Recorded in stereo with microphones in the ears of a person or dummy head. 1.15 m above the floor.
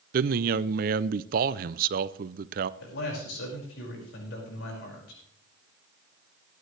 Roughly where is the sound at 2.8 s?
Left.